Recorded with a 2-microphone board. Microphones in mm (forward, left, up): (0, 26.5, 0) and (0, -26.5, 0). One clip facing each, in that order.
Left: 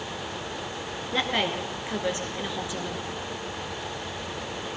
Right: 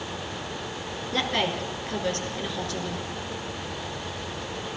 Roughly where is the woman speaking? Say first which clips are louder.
Even; centre.